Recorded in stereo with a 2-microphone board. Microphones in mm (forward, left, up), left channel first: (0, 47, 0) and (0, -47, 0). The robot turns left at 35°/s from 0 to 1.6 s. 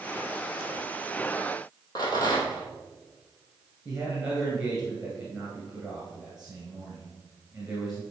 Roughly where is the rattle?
Left.